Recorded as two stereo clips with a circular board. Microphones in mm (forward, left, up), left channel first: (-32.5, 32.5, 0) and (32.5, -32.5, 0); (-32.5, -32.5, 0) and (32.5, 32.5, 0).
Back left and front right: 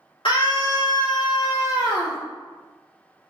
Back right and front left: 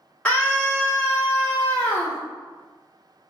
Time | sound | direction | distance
0.2 | a scream | 145° left | 2 m